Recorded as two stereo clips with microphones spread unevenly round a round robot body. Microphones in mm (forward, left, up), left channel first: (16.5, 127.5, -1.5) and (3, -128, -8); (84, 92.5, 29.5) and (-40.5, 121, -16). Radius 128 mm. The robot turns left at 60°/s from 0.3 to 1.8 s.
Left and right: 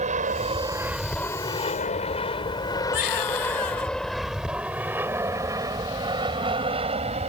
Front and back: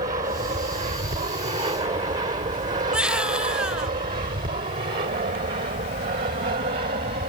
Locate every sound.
0.0 s an aircraft: 150° right; by 7.3 s 155° right
2.9 s a baby crying: 85° left